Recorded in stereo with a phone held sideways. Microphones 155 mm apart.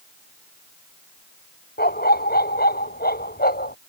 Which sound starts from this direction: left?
A dog barking, at 1.8 s.